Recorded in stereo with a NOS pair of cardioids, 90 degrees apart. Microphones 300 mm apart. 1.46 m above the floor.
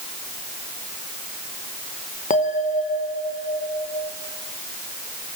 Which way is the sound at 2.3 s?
25° left.